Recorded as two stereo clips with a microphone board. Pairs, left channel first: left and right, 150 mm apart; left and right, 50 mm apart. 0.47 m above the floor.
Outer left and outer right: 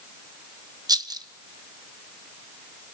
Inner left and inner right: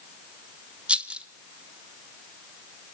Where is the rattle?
25° right (ahead or behind), 0.7 m.